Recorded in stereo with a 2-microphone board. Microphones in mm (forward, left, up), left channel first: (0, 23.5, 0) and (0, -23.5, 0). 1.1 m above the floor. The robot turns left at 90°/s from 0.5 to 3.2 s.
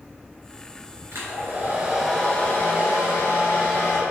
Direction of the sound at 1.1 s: 95° right.